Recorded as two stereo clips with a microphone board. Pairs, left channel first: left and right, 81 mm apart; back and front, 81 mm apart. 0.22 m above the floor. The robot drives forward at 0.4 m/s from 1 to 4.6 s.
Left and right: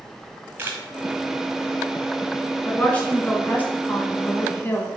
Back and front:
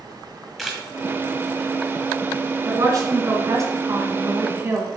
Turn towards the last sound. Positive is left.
turn(degrees=40)